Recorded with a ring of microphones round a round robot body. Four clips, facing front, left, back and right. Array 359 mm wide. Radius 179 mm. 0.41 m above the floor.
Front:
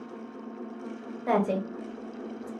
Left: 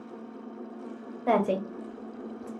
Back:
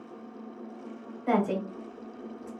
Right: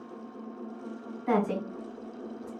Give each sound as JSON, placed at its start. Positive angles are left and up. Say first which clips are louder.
{"t": 1.3, "sound": "a woman speaking", "louder": "left 3 dB, front 1 dB", "azimuth_deg": 70, "distance_m": 1.6}